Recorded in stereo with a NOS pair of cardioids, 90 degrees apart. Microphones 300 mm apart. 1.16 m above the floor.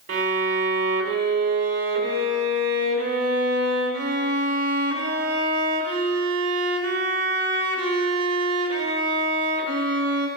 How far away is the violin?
About 2.0 m.